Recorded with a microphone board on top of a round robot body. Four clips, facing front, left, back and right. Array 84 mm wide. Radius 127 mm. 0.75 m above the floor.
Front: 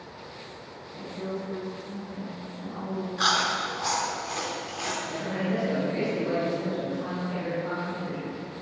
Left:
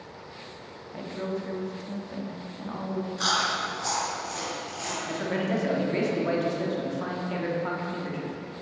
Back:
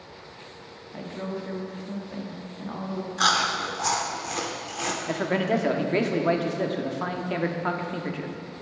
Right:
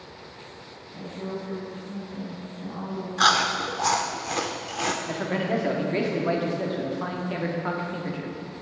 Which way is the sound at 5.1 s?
170° right.